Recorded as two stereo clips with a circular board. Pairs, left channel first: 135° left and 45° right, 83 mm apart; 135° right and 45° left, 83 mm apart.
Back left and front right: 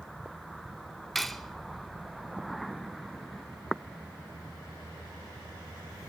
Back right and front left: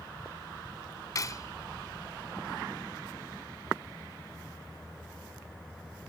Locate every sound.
1.1 s cutlery clinking: 140° right, 0.7 m